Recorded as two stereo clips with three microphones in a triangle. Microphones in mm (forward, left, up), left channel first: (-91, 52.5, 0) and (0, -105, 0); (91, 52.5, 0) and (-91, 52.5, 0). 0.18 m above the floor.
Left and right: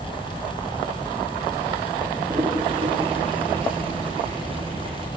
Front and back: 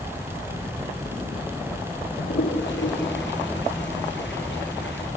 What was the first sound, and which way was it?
A toilet flushing, straight ahead.